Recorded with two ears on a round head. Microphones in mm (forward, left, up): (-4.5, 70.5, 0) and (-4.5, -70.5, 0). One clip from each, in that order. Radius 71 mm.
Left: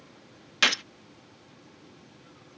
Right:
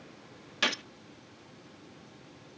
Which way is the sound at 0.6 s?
35° left (ahead or behind).